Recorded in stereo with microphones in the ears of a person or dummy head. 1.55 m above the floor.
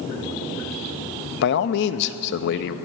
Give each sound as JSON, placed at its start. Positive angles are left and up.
{"t": 1.4, "sound": "a man speaking", "side_deg": 60, "distance_m": 0.6}